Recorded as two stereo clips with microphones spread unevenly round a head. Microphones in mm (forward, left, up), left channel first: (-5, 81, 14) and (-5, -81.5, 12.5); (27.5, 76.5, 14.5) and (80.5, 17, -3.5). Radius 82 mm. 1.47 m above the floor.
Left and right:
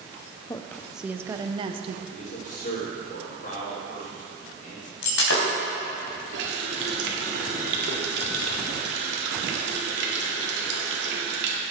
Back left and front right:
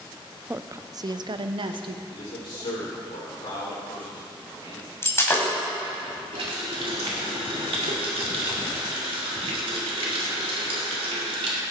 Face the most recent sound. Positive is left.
turn(degrees=-70)